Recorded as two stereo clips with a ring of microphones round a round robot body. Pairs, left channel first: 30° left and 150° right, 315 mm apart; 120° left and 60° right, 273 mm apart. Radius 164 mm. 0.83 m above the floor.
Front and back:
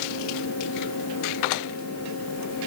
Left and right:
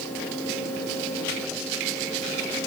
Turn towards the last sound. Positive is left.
No sound to turn to.